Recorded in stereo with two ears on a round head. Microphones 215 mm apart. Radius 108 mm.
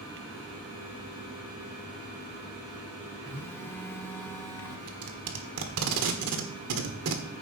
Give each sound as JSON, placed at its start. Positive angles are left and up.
{"t": 3.3, "sound": "a phone buzzing", "side_deg": 10, "distance_m": 0.9}
{"t": 4.9, "sound": "tape being pulled", "side_deg": -70, "distance_m": 1.6}